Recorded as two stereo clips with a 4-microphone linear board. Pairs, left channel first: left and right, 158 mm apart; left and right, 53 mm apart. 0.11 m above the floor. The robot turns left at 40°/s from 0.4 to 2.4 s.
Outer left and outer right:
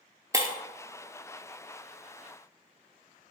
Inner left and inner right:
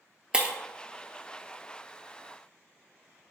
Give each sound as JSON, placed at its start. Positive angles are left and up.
{"t": 0.3, "sound": "breaking glass", "side_deg": -20, "distance_m": 0.5}